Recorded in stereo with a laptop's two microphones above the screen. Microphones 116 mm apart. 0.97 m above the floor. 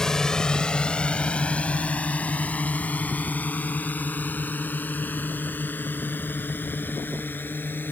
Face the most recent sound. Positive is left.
turn(degrees=15)  # may be behind; listen again after turning